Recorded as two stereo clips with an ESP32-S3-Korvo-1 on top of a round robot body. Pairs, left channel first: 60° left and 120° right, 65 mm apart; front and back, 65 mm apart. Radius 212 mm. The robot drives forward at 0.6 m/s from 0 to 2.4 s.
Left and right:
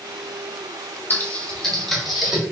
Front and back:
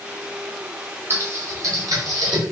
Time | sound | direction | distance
1.1 | typing on a keyboard | 120° left | 0.7 m